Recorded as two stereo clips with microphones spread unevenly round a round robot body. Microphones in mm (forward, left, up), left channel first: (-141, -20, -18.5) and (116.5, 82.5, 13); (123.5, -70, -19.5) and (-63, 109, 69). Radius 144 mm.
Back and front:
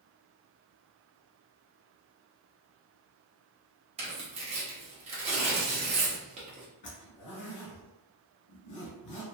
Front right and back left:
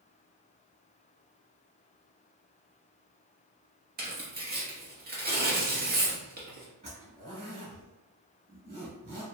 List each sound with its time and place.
4.0 s tearing paper: 75° left, 1.1 m
6.8 s a zipper: 175° right, 1.7 m